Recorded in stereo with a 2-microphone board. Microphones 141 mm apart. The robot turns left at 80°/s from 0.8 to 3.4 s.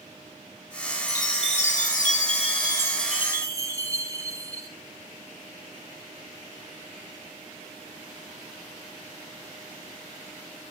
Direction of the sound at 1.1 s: 160° left.